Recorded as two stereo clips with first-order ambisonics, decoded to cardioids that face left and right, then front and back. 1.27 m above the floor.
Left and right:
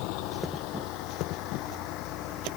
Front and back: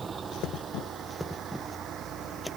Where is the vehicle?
110° left; by 2.6 s 130° left.